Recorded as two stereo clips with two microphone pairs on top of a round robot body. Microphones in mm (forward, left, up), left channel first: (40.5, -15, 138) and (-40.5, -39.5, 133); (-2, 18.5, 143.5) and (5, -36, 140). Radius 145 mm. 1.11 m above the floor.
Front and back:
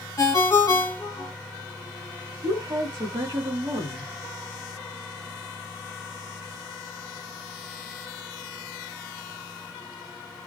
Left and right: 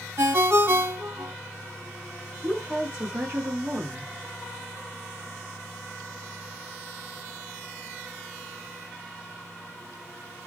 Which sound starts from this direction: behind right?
A woman speaking, at 2.4 s.